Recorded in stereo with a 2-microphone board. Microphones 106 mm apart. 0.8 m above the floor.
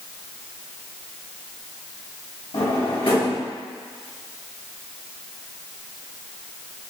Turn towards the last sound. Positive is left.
turn(degrees=70)  # may be behind; listen again after turning